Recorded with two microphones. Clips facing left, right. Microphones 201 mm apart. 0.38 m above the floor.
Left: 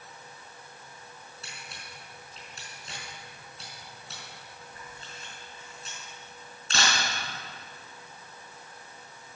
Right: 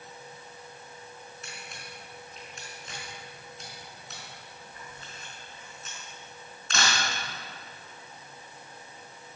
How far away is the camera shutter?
About 5 m.